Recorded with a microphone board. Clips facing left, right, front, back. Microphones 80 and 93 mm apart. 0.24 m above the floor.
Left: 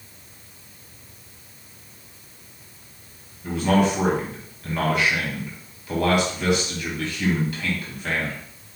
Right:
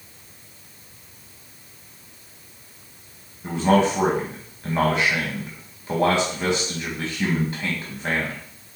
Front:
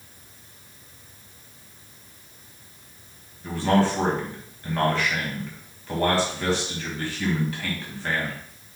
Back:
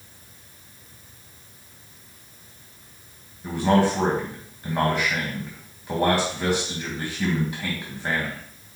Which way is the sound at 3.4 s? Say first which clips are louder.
Right 2 dB, back 1 dB; 120° right.